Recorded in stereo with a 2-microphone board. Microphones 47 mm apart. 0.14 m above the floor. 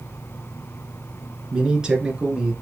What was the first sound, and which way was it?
A man speaking, 15° right (ahead or behind).